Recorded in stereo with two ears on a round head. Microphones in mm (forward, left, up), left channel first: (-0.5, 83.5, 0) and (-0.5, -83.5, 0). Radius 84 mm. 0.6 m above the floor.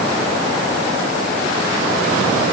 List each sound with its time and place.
Only background noise.